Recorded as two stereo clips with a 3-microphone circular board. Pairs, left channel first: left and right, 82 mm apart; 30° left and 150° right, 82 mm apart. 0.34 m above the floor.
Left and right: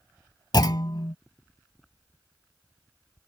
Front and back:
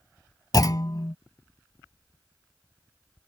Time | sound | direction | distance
0.5 | a clunk | 65° left | ?